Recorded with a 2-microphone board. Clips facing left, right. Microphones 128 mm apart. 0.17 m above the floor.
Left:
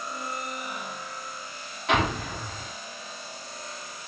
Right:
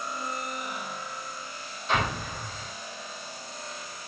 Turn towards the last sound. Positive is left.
turn(degrees=80)